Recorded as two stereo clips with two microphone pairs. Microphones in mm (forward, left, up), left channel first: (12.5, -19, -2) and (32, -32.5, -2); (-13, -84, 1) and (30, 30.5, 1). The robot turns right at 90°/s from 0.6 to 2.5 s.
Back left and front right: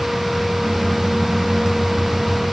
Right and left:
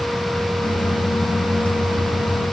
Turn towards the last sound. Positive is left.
No sound to turn to.